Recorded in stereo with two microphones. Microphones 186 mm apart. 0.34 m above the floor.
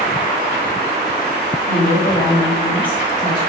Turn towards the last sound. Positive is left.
turn(degrees=20)  # may be behind; listen again after turning